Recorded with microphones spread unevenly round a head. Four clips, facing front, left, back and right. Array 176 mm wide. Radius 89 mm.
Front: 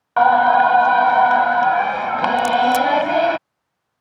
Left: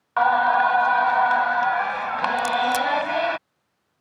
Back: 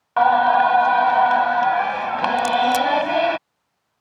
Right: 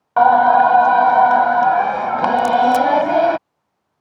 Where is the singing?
80° right.